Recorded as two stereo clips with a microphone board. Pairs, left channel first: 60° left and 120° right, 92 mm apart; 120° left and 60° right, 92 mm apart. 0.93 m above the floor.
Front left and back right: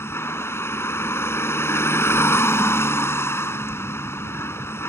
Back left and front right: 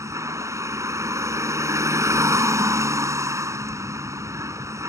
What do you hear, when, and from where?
0.0 s a vehicle: 5° right